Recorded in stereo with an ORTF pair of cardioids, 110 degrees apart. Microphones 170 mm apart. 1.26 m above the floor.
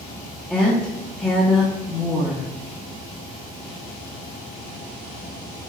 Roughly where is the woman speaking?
Ahead.